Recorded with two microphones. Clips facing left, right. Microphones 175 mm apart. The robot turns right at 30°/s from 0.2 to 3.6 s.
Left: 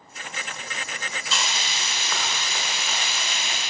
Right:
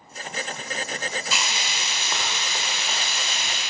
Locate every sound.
1.3 s frying: 170° right, 0.9 m; by 3.6 s 100° right, 0.9 m